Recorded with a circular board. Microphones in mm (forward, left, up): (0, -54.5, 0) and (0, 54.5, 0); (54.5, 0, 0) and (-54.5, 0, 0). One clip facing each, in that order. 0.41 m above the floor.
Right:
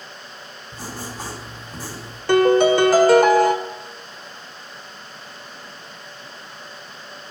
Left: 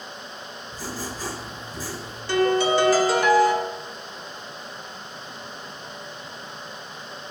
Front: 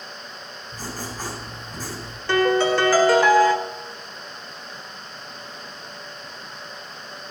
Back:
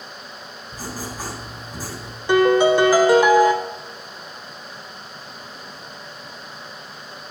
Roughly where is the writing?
Right.